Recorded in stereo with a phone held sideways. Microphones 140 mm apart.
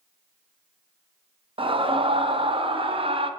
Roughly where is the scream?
Right.